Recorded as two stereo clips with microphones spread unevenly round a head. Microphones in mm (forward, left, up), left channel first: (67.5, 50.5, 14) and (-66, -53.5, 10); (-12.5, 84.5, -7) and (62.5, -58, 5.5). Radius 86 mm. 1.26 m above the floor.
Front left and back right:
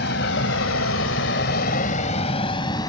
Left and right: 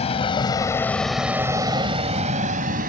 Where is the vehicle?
65° left; by 2.9 s 30° right.